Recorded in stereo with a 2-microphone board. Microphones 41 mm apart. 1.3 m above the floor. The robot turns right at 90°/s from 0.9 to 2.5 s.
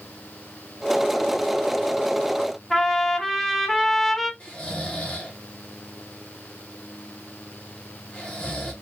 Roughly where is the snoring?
Left.